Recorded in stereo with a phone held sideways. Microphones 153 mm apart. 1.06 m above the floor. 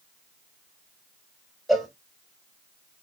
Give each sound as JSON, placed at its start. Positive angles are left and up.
{"t": 1.7, "sound": "a cowbell", "side_deg": 0, "distance_m": 0.9}